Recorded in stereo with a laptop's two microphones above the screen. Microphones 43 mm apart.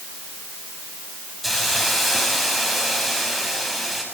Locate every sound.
1.4 s a hiss: 5° right (ahead or behind), 6 m